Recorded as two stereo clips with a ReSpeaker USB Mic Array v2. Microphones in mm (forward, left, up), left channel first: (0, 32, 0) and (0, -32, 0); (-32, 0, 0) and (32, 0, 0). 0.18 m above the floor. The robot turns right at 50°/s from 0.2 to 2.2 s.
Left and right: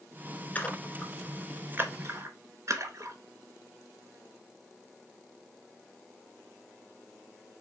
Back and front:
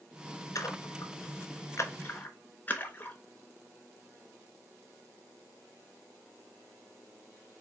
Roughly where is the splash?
Behind left.